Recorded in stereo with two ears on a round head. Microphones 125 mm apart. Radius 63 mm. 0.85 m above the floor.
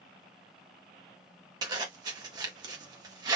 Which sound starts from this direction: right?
A zipper, at 1.6 s.